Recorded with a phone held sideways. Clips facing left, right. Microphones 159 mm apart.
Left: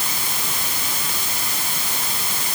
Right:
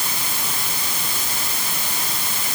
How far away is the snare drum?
No snare drum in this recording.